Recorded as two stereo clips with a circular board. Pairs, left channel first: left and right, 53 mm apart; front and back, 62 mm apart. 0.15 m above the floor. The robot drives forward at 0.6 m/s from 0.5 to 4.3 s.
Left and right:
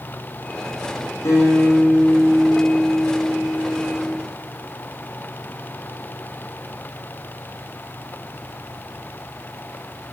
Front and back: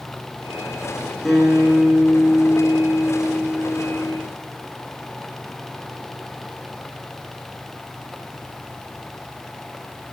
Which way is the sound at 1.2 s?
85° left.